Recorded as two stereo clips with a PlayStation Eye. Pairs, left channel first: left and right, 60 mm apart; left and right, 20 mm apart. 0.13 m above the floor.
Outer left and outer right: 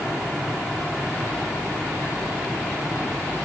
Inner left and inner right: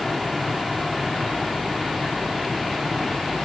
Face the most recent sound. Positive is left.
No sound to turn to.